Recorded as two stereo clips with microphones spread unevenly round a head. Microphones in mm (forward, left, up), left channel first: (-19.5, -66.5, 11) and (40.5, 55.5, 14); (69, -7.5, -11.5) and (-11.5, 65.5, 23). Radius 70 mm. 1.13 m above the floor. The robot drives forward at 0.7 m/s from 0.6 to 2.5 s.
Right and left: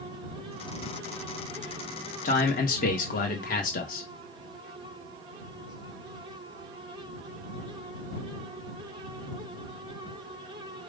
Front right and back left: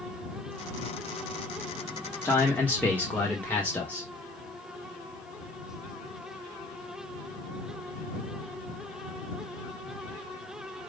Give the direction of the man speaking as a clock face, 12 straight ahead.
3 o'clock.